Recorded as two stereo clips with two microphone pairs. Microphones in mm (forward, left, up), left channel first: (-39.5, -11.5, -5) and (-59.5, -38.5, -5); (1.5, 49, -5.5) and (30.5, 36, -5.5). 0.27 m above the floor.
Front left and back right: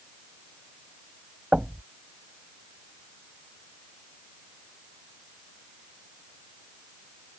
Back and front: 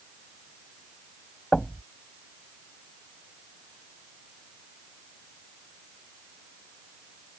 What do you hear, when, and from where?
1.5 s knocking: 150° right